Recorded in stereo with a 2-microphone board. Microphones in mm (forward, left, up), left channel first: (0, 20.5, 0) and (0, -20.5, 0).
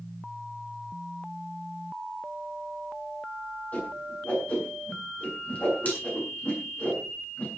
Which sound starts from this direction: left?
A whoosh, at 3.7 s.